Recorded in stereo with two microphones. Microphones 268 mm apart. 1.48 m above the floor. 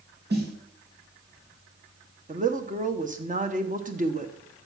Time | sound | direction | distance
0.3 | a snare drum | 40° right (ahead or behind) | 2.5 m
2.3 | a woman speaking | 30° right (ahead or behind) | 1.3 m